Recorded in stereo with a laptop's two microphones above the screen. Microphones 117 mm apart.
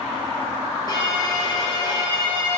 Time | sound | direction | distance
0.9 | a violin | 35° left (ahead or behind) | 1.0 m